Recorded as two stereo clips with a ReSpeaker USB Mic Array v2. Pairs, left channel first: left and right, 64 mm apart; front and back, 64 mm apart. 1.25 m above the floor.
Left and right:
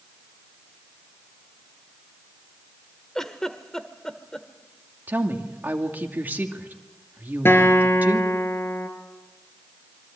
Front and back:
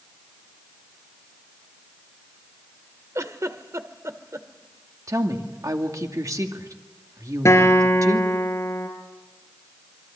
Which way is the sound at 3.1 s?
170° left.